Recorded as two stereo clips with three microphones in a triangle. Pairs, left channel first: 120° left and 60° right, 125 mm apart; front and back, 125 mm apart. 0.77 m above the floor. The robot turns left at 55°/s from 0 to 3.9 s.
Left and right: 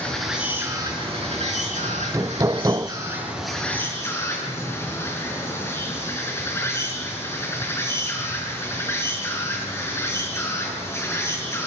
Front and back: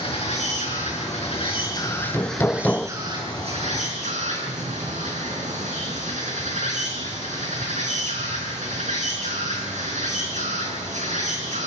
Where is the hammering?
25° right, 0.5 m; by 2.9 s 80° right, 0.5 m.